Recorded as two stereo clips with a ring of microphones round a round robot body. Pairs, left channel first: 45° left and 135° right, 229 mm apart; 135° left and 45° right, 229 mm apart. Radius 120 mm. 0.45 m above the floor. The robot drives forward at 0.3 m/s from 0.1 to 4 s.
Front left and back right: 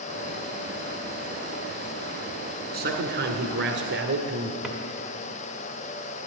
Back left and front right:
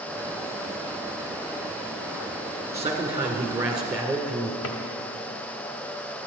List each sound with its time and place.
2.7 s a man speaking: 120° right, 1.4 m; by 4.5 s 135° right, 1.6 m
4.6 s a drawer: 135° left, 1.0 m